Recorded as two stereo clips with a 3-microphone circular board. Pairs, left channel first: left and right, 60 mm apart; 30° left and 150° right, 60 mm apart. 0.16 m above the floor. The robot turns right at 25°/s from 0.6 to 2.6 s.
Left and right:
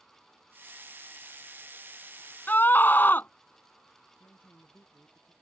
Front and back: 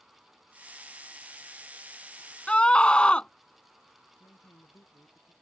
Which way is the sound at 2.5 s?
80° left.